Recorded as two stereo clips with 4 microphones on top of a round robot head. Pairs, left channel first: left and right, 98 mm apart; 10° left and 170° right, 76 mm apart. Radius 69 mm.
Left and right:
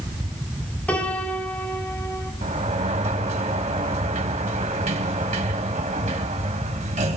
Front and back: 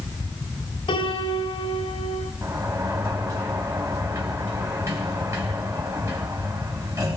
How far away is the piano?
About 4.5 m.